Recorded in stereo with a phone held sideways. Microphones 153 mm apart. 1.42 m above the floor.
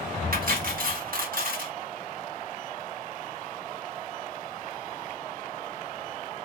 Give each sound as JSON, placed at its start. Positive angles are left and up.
{"t": 0.3, "sound": "cutlery clinking", "side_deg": -70, "distance_m": 1.3}